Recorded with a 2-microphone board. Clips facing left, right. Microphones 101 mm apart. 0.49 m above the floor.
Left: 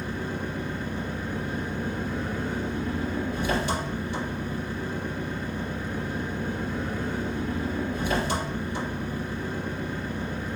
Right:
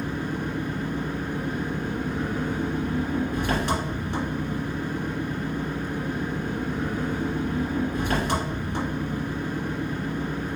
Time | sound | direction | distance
0.0 | an engine running | 75° right (ahead or behind) | 2 m